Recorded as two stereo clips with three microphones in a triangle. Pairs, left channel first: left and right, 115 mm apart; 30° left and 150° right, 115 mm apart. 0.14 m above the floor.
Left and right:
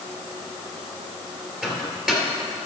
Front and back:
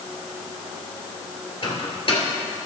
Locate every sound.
1.6 s a microwave: 5° right, 2.5 m